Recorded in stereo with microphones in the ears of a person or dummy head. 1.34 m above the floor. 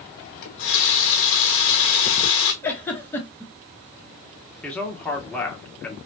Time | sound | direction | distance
0.4 | a running tap | 65° left (ahead or behind) | 1.0 m
2.6 | a giggle | 10° left (ahead or behind) | 1.0 m
4.6 | a man speaking | 10° left (ahead or behind) | 0.8 m